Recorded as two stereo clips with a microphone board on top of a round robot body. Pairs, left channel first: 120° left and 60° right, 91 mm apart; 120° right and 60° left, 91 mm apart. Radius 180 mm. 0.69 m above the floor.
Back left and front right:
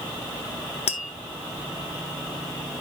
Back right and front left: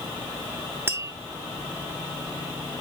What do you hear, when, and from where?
0.9 s tapping: 125° left, 0.8 m